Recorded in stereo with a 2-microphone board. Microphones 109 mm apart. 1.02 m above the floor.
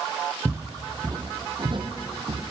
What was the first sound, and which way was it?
Footsteps, 20° right (ahead or behind).